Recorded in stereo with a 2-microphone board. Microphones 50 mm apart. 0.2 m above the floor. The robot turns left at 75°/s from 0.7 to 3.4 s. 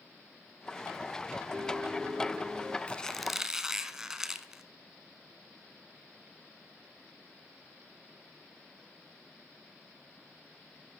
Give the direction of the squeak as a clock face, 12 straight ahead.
11 o'clock.